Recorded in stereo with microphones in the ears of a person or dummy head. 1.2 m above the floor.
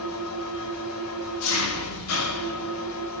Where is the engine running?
80° left, 3 m.